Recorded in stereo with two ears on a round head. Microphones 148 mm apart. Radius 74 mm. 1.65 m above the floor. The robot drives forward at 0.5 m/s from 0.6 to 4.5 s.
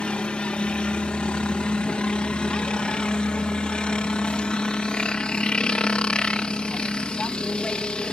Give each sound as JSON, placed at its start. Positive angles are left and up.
{"t": 0.0, "sound": "a helicopter", "side_deg": 5}